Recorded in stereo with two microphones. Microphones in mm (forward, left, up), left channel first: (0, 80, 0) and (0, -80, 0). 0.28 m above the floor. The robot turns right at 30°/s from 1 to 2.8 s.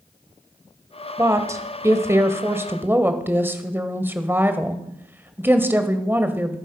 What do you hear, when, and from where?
1.2 s a woman speaking: 20° right (ahead or behind), 0.9 m; by 6.6 s 15° right (ahead or behind), 0.9 m